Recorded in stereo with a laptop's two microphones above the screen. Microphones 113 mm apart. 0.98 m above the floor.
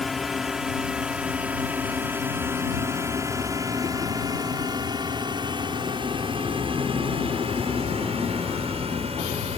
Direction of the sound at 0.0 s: Centre (ahead or behind).